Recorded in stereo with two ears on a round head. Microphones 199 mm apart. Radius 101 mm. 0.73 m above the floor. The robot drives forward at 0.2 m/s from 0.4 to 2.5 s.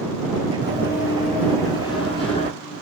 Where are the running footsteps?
20° right (ahead or behind), 1.0 m; by 2.5 s 25° left (ahead or behind), 1.4 m.